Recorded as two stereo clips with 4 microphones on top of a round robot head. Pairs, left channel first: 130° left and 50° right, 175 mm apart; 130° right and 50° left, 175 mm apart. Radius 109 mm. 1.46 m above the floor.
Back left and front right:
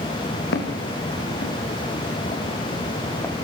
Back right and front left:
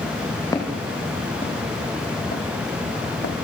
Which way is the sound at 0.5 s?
155° left.